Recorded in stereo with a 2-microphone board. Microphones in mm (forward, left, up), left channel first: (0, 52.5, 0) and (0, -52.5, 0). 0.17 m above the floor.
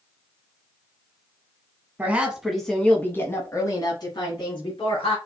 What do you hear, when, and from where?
2.0 s a woman speaking: 15° right (ahead or behind), 1.2 m; by 5.2 s 60° left (ahead or behind), 2 m